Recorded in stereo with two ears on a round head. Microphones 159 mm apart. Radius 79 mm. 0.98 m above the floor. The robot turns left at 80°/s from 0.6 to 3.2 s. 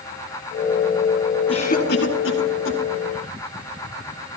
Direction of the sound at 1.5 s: 30° left (ahead or behind).